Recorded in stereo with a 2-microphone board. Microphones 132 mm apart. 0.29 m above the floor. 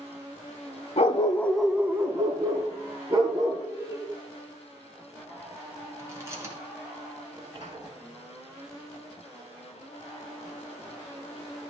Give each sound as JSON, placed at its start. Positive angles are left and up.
{"t": 1.0, "sound": "a dog barking", "side_deg": 60, "distance_m": 0.7}
{"t": 3.7, "sound": "laughter", "side_deg": -25, "distance_m": 1.7}
{"t": 6.0, "sound": "chewing", "side_deg": -25, "distance_m": 2.5}
{"t": 7.3, "sound": "a sliding door", "side_deg": -30, "distance_m": 3.0}